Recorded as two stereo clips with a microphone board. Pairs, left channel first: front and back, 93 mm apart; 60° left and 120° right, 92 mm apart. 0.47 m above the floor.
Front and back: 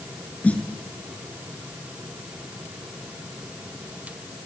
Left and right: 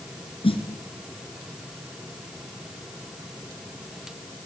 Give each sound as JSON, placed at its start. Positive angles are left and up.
{"t": 0.4, "sound": "a snare drum", "azimuth_deg": 75, "distance_m": 4.0}